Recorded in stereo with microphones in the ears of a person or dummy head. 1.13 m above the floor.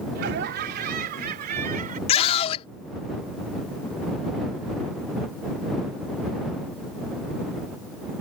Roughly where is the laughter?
Right.